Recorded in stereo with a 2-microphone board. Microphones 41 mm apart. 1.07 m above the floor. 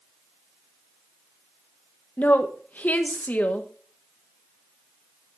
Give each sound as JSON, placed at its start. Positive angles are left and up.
{"t": 2.2, "sound": "a woman speaking", "side_deg": 45, "distance_m": 1.3}